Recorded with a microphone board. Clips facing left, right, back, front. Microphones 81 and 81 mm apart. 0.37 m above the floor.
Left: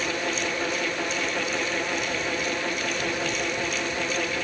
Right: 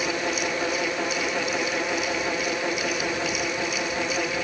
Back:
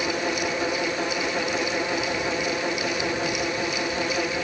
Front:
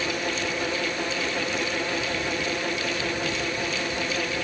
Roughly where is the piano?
I don't hear a piano.